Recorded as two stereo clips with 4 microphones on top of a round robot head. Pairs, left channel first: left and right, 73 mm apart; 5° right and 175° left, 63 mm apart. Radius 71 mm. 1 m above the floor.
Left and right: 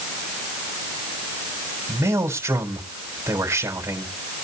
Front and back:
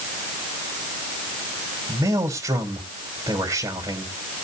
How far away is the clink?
I don't hear a clink.